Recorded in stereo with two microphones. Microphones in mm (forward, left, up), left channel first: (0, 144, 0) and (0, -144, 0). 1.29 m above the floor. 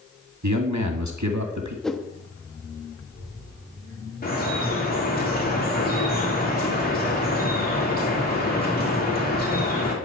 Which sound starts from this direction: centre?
A whoosh, at 1.8 s.